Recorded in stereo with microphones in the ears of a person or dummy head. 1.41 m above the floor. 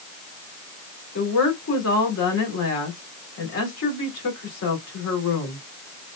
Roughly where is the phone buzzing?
I don't hear a phone buzzing.